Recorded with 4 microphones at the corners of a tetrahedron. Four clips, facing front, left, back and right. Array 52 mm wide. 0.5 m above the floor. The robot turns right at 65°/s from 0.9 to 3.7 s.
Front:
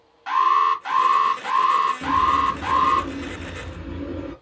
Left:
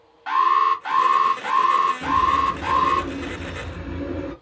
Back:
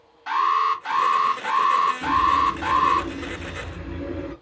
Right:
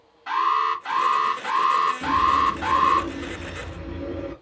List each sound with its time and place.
0.3 s an alarm: 75° left, 1.4 m; by 3.0 s 150° right, 1.4 m
2.0 s a bird: 5° right, 1.3 m; by 4.3 s 105° left, 1.3 m